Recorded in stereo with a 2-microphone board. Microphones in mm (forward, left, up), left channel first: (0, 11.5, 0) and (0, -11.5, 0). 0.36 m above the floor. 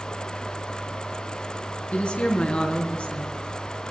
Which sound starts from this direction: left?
A woman speaking, at 1.9 s.